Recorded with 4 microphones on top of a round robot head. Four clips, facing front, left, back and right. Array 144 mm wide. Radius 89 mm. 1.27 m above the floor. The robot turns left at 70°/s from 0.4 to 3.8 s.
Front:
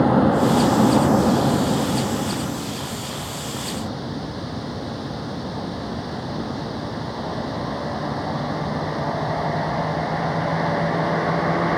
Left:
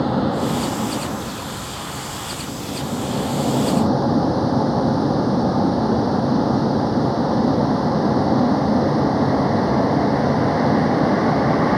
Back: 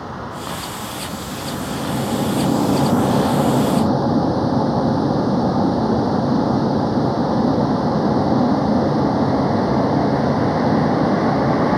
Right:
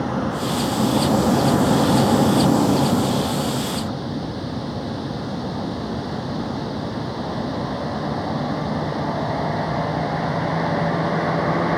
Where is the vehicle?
20° left; by 11.8 s 140° left.